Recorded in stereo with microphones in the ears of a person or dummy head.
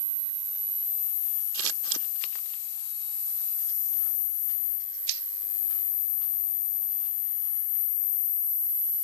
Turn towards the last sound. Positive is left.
turn(degrees=-80)